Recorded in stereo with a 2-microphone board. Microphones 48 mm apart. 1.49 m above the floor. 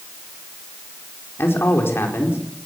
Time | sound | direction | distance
1.4 | a man speaking | 55° left (ahead or behind) | 4.5 m